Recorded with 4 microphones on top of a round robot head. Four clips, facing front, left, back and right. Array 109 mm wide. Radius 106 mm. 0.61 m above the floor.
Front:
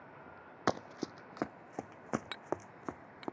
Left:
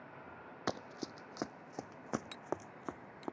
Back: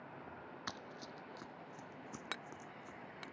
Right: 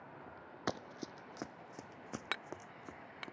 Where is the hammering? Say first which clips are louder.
Left 3 dB, front 8 dB; 100° right.